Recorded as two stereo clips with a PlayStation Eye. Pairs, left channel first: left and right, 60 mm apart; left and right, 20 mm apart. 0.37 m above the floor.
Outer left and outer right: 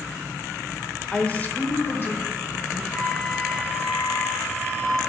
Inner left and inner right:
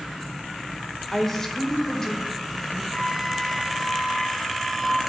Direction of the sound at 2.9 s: 45° left (ahead or behind).